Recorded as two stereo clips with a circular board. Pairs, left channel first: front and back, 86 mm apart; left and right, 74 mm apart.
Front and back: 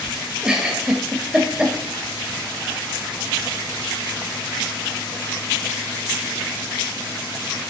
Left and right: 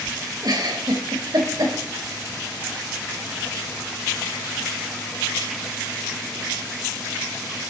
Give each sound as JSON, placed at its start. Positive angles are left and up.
{"t": 0.4, "sound": "a giggle", "azimuth_deg": -100, "distance_m": 1.7}